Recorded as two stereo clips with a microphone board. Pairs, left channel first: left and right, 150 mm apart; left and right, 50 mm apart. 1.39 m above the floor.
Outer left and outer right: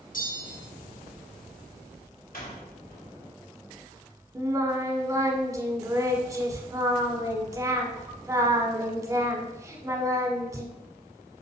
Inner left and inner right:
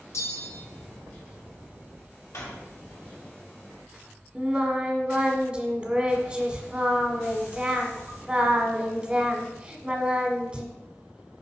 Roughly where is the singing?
Right.